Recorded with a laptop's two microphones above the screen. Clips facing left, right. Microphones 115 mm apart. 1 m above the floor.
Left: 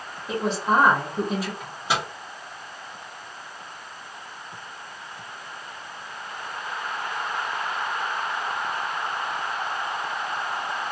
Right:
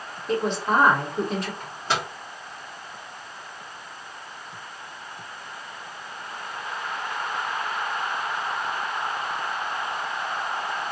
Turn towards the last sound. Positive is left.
turn(degrees=10)  # may be behind; listen again after turning